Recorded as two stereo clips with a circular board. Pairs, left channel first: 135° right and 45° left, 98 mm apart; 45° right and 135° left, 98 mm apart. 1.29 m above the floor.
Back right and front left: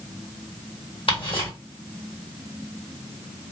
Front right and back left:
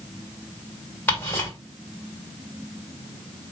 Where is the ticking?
115° right, 1.8 m.